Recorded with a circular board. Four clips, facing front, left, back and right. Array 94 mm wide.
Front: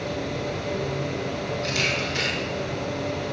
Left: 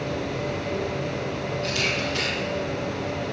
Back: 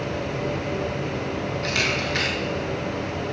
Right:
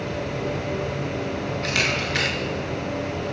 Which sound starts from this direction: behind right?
A camera shutter, at 1.6 s.